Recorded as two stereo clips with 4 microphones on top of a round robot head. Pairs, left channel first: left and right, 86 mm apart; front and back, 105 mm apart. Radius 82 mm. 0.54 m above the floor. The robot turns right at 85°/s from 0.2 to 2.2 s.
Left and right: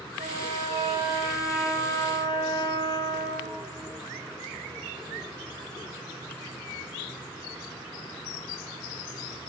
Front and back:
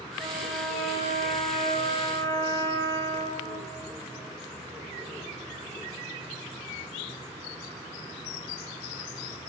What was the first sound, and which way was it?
A trumpet, 115° right.